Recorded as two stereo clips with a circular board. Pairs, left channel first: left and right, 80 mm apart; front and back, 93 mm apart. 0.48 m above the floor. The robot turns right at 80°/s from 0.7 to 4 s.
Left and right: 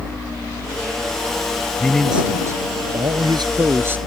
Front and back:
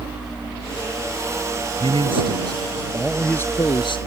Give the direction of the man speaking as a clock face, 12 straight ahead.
7 o'clock.